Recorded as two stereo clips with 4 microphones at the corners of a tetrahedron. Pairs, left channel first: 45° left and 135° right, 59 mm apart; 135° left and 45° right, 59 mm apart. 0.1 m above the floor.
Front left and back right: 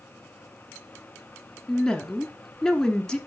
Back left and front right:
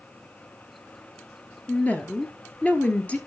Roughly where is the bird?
No bird in this recording.